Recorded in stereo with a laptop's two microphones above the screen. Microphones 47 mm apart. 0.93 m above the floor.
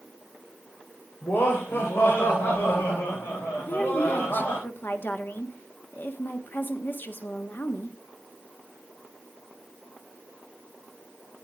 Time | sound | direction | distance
1.2 | laughter | 60° left (ahead or behind) | 3.5 m
3.6 | a woman speaking | 45° left (ahead or behind) | 1.3 m